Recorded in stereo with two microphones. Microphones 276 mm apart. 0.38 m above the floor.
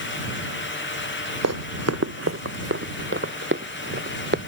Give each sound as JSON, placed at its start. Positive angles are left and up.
{"t": 1.4, "sound": "running footsteps", "side_deg": -75}